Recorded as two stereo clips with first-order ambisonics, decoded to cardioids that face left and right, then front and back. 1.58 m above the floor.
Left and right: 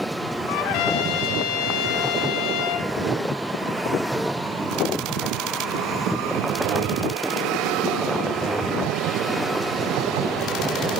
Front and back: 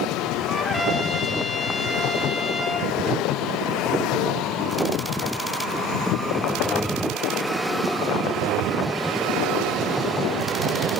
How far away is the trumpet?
About 3.5 m.